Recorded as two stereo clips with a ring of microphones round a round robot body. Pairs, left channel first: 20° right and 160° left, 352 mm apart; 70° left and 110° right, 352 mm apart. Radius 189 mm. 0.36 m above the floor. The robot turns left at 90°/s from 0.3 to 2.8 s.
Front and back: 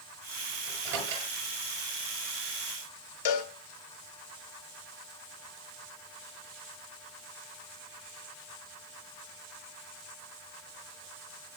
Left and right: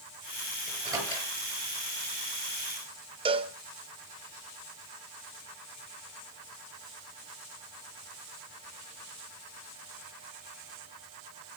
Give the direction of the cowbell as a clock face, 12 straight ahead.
1 o'clock.